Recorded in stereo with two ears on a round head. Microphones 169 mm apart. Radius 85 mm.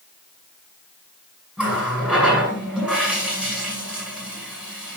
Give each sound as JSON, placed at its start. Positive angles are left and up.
{"t": 1.6, "sound": "a running tap", "side_deg": -5, "distance_m": 9.0}